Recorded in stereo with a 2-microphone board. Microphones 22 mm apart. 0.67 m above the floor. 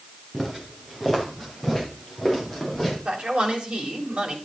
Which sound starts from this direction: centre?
Footsteps, at 0.3 s.